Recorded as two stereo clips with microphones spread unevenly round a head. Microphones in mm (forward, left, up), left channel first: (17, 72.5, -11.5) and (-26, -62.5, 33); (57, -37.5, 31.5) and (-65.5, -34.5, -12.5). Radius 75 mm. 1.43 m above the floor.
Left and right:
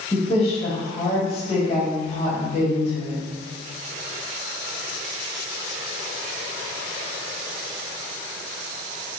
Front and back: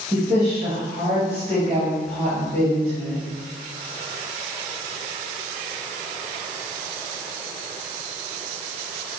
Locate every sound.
0.1 s a woman speaking: 120° left, 2.5 m